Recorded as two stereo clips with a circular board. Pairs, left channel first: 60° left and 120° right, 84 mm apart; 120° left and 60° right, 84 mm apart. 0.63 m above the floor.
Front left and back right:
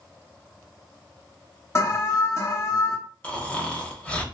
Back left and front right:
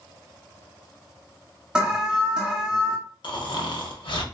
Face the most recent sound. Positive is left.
turn(degrees=135)